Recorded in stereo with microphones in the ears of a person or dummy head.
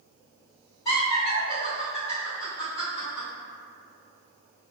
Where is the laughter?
25° left (ahead or behind), 1.9 m.